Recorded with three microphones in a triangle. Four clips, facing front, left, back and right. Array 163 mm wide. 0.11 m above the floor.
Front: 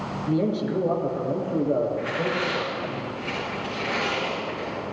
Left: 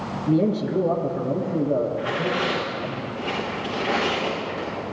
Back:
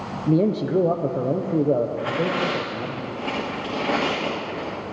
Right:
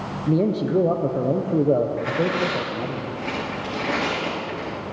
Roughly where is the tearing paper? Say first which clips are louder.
Right 2 dB, back 3 dB; behind.